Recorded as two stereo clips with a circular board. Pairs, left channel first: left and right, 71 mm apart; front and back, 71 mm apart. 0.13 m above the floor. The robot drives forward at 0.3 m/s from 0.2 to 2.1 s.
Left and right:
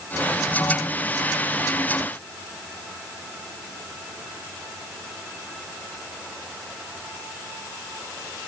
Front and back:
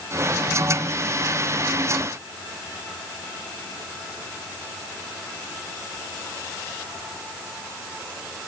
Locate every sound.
Only background noise.